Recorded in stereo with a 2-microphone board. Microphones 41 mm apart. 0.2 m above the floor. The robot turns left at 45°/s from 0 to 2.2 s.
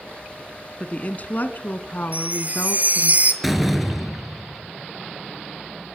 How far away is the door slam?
About 2.5 m.